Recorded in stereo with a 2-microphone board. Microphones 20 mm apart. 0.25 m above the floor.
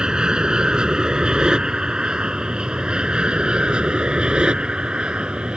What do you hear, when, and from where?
0.0 s an aircraft: 40° right (ahead or behind); by 5.6 s 55° right (ahead or behind)